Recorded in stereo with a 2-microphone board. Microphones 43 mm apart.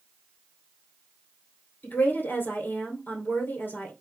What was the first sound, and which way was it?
A woman speaking, 55° left (ahead or behind).